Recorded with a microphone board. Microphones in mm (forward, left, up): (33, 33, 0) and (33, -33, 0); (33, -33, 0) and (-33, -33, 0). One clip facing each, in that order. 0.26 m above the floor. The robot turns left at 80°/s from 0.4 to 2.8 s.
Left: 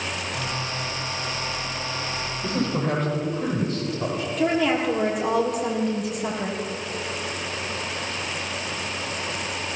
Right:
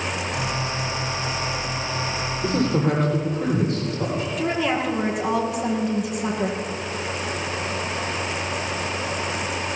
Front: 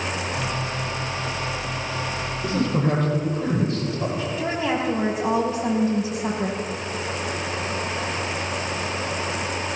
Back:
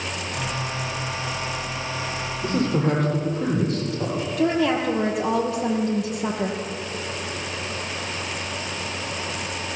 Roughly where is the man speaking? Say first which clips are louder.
Right 4 dB, back 1 dB; behind right.